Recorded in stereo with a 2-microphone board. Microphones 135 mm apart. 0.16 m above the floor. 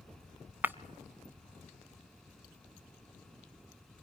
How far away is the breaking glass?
About 0.5 m.